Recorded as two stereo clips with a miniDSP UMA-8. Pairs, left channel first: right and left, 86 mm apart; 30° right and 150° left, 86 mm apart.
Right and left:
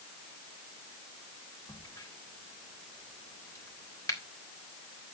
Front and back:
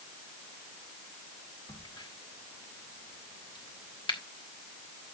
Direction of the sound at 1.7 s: 40° right.